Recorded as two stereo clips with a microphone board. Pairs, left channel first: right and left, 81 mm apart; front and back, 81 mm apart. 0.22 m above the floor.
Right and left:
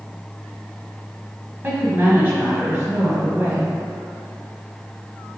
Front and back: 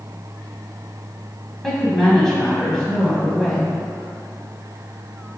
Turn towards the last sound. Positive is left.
turn(degrees=85)